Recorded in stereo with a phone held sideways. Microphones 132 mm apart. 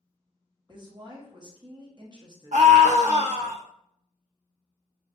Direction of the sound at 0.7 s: 35° right (ahead or behind).